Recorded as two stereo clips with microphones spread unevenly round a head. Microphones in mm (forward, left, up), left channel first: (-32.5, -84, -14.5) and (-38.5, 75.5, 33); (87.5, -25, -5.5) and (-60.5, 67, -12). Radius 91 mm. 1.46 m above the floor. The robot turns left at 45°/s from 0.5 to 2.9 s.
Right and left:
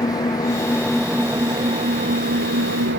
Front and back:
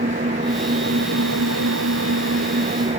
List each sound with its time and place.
0.0 s an engine running: 155° right; by 3.0 s 95° left